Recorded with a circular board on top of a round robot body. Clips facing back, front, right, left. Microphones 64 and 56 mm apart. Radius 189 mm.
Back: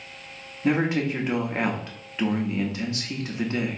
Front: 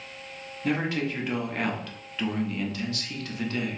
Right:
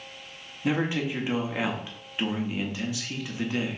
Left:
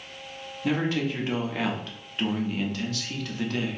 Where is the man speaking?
145° right, 1.0 m.